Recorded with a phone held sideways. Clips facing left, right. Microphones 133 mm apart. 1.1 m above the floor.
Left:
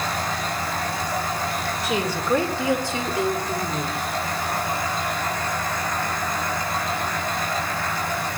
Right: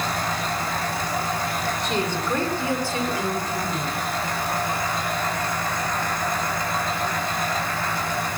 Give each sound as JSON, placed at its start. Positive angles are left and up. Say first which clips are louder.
{"t": 1.8, "sound": "a woman speaking", "louder": "left 3 dB", "side_deg": 5, "distance_m": 3.0}